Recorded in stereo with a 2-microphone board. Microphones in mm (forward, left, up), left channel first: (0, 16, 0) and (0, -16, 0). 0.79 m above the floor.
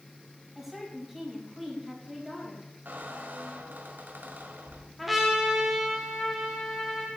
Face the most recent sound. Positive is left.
turn(degrees=-5)  # may be behind; listen again after turning